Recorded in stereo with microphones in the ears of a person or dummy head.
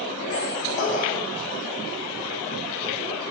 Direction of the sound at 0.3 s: 45° left (ahead or behind).